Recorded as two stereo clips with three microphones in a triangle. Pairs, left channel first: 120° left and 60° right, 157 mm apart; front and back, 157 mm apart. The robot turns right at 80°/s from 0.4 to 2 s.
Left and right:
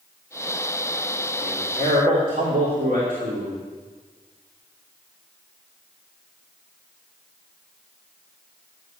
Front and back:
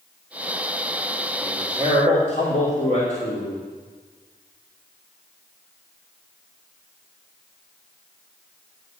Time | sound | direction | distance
1.4 | a man speaking | 85° right | 3 m